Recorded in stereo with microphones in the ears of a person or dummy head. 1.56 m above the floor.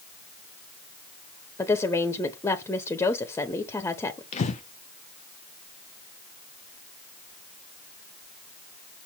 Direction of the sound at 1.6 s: 20° left (ahead or behind).